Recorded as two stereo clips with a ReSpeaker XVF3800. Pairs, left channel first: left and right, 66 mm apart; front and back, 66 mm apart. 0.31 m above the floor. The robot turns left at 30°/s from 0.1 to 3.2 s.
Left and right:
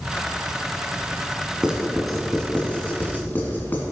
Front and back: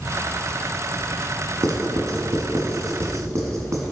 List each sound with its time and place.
1.6 s writing: 165° right, 1.5 m; by 3.8 s 145° left, 1.5 m